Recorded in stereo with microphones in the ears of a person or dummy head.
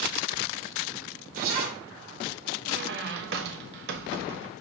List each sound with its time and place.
1.3 s a zipper: 50° right (ahead or behind), 1.4 m
2.7 s a squeak: 65° right (ahead or behind), 0.6 m